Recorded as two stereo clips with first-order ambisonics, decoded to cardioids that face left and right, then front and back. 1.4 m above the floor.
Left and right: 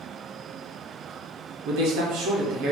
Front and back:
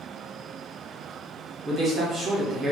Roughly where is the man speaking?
Right.